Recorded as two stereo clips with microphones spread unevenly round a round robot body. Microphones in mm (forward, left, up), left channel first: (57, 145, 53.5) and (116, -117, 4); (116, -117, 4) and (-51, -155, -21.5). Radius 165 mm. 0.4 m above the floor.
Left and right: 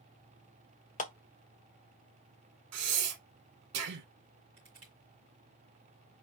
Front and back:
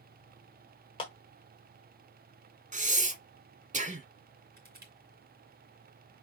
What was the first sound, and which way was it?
A clap, 55° left.